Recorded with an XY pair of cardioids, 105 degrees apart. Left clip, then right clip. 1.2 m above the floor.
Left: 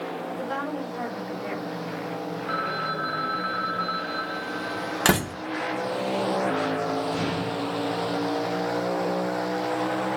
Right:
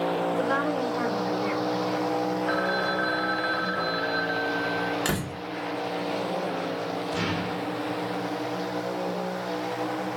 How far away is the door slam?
About 1.6 m.